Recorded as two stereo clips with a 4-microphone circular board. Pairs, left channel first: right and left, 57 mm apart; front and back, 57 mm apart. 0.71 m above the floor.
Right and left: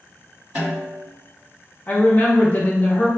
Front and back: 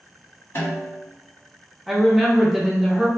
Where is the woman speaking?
95° right, 0.7 m.